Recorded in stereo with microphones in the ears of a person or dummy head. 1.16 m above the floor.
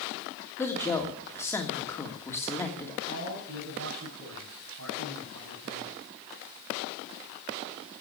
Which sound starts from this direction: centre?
A woman speaking, at 0.6 s.